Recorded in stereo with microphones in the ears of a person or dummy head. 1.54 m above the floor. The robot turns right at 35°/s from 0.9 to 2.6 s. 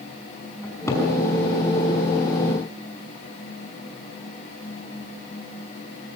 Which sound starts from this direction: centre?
A cupboard door, at 0.6 s.